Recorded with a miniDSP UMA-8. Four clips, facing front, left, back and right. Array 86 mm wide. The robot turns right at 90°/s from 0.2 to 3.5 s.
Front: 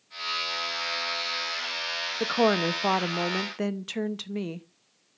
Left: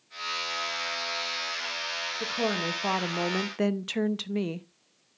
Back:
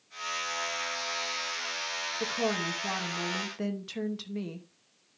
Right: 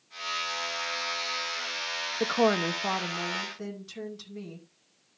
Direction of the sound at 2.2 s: 55° right.